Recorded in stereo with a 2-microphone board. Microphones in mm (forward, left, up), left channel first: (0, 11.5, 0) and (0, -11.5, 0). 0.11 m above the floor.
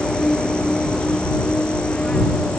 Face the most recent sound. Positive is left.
turn(degrees=45)  # may be behind; listen again after turning